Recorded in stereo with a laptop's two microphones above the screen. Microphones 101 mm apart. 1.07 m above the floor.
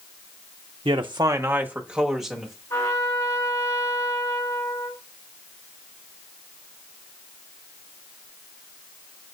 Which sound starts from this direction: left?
A trumpet, at 2.7 s.